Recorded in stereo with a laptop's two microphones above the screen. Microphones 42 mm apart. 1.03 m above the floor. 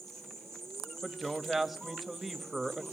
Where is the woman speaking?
Centre (ahead or behind), 1.1 m.